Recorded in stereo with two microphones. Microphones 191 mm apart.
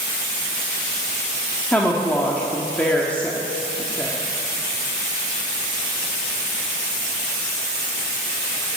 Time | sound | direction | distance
1.7 | a woman speaking | 10° left (ahead or behind) | 1.2 m